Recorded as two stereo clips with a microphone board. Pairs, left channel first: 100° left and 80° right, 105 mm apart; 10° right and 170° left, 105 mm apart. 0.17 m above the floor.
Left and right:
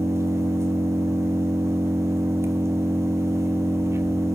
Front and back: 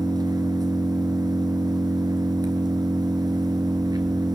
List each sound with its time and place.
0.0 s an engine running: 140° right, 2.5 m